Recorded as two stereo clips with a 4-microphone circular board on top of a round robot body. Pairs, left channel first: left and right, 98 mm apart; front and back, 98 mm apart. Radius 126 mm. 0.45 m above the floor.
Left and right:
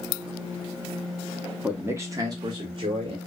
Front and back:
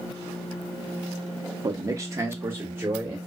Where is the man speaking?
160° right, 0.8 m; by 3.2 s 110° right, 1.3 m.